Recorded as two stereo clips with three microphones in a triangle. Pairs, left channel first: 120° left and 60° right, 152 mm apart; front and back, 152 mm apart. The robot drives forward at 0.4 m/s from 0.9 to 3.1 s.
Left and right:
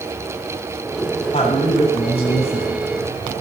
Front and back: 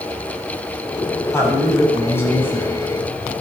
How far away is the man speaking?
About 7.5 m.